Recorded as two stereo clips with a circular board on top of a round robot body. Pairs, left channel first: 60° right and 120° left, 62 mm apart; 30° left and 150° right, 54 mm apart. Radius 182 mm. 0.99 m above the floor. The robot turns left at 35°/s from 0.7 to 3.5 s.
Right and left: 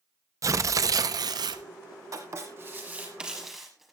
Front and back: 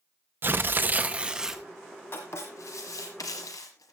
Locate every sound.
0.4 s tearing paper: 160° left, 0.8 m; by 1.6 s 125° left, 0.8 m
2.1 s writing: 80° left, 1.1 m; by 3.9 s 35° left, 1.1 m